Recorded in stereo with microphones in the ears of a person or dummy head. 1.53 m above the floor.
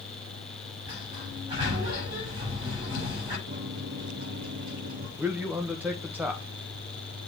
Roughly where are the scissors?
I don't hear scissors.